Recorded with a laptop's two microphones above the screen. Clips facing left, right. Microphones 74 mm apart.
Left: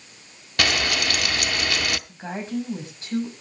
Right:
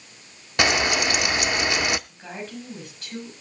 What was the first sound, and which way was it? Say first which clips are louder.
Frying: right 3 dB; 20° right (ahead or behind).